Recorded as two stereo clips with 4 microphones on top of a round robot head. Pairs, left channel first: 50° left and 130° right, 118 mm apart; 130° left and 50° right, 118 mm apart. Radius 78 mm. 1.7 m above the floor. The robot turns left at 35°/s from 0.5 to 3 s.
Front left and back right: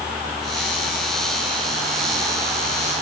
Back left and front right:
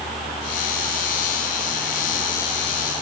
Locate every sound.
Only background noise.